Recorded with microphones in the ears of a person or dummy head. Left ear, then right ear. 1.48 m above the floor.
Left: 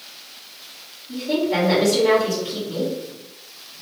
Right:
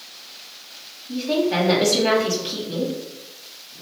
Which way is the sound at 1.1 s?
55° right (ahead or behind).